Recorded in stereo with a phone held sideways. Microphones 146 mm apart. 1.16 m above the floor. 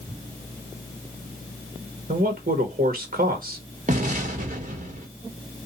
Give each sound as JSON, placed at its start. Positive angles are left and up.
{"t": 2.1, "sound": "a man speaking", "side_deg": -65, "distance_m": 1.7}
{"t": 3.9, "sound": "an explosion", "side_deg": -55, "distance_m": 2.0}